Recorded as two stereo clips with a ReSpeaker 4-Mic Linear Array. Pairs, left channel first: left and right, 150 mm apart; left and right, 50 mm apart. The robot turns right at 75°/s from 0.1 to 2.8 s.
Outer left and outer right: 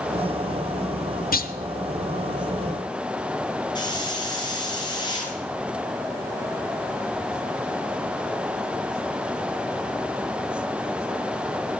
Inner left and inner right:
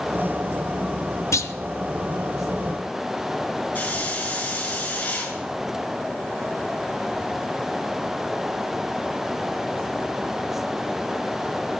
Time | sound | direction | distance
1.3 | a clunk | 80° left | 0.8 m
3.8 | a hiss | 30° left (ahead or behind) | 4 m